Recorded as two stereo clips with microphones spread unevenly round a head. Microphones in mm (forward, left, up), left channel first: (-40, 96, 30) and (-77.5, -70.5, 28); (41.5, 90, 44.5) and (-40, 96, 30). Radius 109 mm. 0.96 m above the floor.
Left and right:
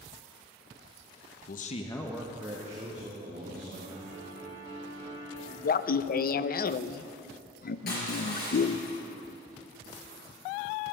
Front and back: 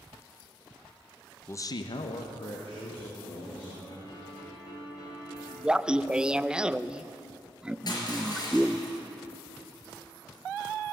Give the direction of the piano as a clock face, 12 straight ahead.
11 o'clock.